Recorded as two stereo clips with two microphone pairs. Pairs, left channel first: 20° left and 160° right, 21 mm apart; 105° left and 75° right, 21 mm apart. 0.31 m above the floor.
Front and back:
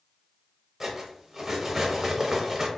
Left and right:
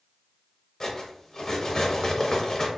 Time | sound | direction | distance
0.8 | cutlery clinking | 130° left | 0.8 m